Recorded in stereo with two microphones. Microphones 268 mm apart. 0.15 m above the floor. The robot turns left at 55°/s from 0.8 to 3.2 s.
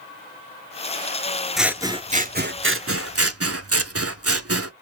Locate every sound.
1.6 s scissors: straight ahead, 0.5 m; by 4.7 s 90° right, 0.5 m